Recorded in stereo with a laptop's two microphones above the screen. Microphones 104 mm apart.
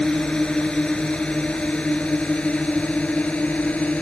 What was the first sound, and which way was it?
A drone, 10° left (ahead or behind).